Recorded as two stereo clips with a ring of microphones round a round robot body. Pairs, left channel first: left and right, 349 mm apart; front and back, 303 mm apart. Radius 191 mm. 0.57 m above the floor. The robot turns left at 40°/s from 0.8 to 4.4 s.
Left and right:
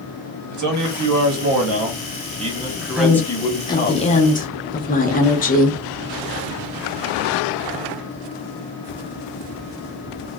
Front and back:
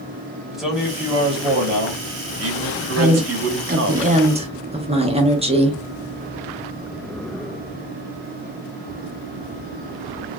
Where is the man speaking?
90° right, 1.0 m; by 4.0 s 140° left, 1.0 m.